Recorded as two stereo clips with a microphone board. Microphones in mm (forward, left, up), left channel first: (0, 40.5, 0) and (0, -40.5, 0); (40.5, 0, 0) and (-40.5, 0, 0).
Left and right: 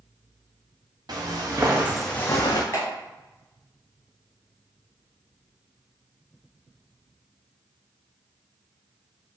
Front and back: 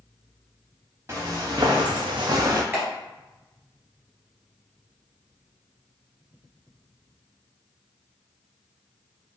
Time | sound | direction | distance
1.1 | footsteps | 125° right | 1.2 m
2.7 | a clap | 120° left | 1.4 m